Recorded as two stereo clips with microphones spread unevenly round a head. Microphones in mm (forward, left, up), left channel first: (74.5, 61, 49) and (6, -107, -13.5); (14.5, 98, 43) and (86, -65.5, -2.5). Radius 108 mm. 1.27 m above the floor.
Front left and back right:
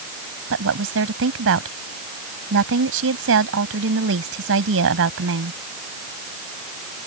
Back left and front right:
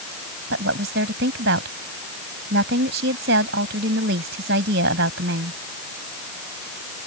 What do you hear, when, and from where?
0.5 s a woman speaking: 110° right